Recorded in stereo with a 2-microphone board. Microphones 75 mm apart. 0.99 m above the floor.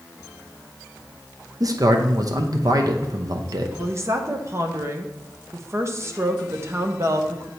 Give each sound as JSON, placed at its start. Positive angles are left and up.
{"t": 1.6, "sound": "a man speaking", "side_deg": -55, "distance_m": 0.7}
{"t": 3.8, "sound": "a woman speaking", "side_deg": -35, "distance_m": 0.7}